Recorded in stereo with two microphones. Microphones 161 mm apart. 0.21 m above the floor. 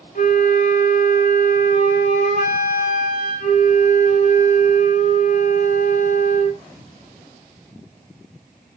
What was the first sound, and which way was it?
A flute, 60° left (ahead or behind).